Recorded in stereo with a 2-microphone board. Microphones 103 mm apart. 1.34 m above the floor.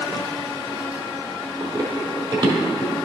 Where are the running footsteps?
40° right (ahead or behind), 1.7 m; by 2.9 s 45° right (ahead or behind), 2 m.